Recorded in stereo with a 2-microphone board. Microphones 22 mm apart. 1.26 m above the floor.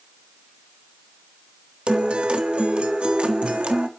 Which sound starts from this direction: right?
A guitar, at 1.9 s.